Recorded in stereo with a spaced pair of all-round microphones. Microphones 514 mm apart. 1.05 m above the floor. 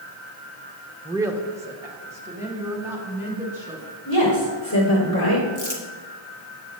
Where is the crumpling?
35° left (ahead or behind), 1.3 m.